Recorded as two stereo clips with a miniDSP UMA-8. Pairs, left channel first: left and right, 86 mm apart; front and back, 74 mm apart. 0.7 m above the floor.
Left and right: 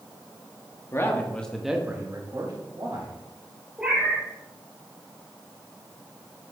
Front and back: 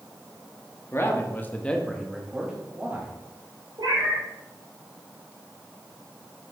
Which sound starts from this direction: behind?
A cat meowing, at 3.8 s.